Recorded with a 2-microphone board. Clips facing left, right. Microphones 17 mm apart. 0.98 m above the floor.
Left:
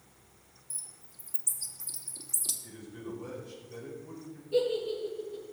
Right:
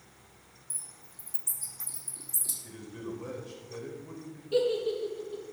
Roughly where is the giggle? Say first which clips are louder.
Right 1 dB; right.